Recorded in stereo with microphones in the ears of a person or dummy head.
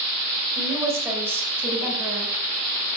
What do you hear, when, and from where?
0.6 s a woman speaking: 15° right (ahead or behind), 6 m; by 2.3 s 10° right (ahead or behind), 5.5 m